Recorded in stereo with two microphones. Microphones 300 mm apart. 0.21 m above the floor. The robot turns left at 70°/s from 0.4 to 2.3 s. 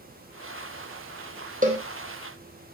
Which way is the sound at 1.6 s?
30° right (ahead or behind).